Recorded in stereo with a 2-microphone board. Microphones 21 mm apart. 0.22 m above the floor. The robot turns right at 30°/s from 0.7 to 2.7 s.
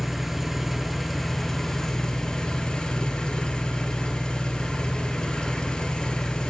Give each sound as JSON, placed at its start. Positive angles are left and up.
{"t": 0.0, "sound": "an engine running", "azimuth_deg": -5, "distance_m": 0.9}